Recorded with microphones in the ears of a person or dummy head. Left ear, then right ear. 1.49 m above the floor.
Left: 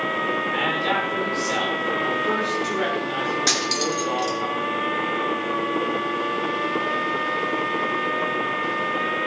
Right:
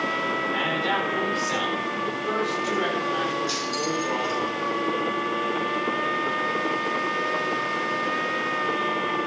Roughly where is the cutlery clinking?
Left.